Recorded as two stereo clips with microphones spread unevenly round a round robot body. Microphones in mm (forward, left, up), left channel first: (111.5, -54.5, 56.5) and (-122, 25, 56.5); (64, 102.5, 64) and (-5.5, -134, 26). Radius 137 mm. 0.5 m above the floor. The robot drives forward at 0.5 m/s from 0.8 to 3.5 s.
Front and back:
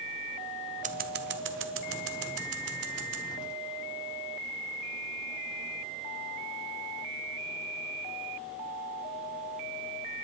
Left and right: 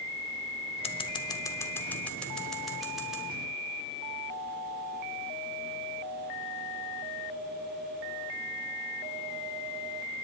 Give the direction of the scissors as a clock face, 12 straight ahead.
8 o'clock.